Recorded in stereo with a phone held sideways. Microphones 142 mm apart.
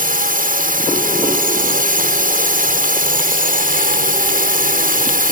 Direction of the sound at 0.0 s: 75° right (ahead or behind).